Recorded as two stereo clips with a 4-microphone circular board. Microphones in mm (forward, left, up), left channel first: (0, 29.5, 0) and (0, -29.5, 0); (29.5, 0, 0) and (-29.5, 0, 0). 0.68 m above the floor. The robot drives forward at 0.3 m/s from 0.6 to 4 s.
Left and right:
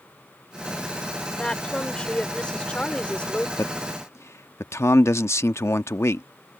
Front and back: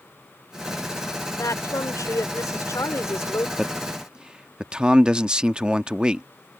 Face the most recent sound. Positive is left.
turn(degrees=110)